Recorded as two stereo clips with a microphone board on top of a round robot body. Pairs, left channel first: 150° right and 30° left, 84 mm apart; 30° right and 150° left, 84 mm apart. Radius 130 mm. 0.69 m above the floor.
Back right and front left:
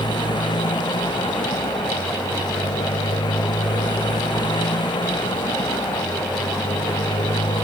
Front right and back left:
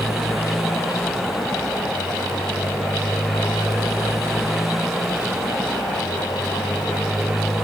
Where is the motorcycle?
125° right.